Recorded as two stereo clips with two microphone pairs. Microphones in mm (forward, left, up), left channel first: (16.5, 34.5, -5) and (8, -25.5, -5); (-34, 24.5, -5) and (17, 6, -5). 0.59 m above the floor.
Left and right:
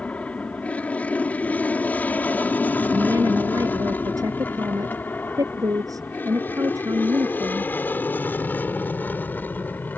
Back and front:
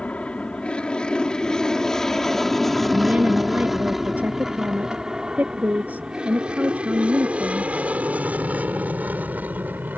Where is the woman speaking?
80° right.